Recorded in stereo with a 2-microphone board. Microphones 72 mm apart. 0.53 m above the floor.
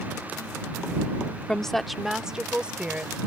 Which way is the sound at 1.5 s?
10° left (ahead or behind).